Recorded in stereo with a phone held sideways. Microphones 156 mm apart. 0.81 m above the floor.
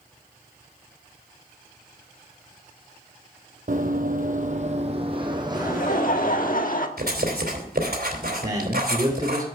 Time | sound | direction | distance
3.7 | running footsteps | 60° right (ahead or behind) | 1.6 m
5.5 | laughter | 60° left (ahead or behind) | 1.4 m
7.0 | writing | 75° right (ahead or behind) | 3.5 m
8.4 | a man speaking | 25° right (ahead or behind) | 2.5 m